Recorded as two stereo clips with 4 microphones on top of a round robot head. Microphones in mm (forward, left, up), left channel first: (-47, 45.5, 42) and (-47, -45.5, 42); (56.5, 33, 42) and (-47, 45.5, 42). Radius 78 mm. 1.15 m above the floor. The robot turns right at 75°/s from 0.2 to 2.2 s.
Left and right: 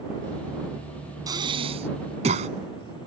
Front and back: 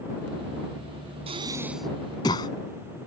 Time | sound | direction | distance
1.3 | breathing | 140° right | ?